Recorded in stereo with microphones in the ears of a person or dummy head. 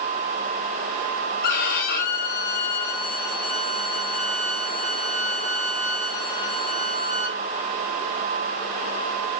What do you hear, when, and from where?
1.4 s a violin: 60° left (ahead or behind), 5 m